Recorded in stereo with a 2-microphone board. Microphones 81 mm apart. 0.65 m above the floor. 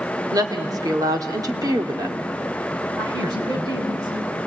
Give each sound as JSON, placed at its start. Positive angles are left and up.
{"t": 0.3, "sound": "a woman speaking", "side_deg": -45, "distance_m": 2.0}
{"t": 3.0, "sound": "a woman speaking", "side_deg": -55, "distance_m": 5.5}